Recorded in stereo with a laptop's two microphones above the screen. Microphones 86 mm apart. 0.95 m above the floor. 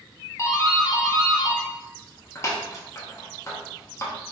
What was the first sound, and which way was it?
A doorbell, 35° left (ahead or behind).